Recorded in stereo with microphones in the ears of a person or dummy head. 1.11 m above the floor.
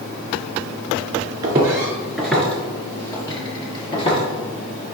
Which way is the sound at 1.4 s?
20° right (ahead or behind).